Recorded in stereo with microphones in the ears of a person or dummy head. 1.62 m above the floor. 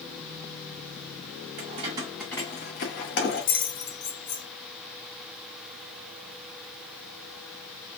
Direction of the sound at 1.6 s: 35° right (ahead or behind).